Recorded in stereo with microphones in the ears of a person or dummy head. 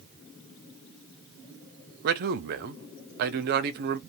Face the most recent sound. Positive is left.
turn(degrees=-50)  # may be behind; listen again after turning